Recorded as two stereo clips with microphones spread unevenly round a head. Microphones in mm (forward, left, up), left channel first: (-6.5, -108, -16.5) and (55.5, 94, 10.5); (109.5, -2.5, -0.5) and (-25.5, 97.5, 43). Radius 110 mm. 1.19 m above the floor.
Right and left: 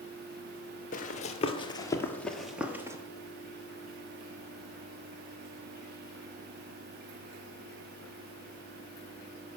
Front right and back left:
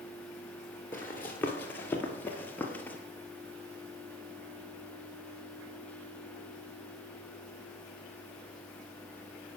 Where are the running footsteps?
135° right, 1.3 m; by 3.0 s 70° left, 1.2 m.